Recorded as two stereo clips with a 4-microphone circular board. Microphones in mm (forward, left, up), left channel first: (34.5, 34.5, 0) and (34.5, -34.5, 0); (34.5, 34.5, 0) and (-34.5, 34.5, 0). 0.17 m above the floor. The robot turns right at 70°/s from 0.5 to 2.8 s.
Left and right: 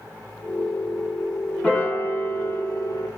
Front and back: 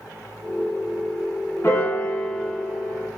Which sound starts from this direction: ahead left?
A piano, at 1.6 s.